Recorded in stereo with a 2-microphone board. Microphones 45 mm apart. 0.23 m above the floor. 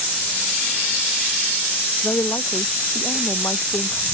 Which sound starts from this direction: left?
A woman speaking, at 2.0 s.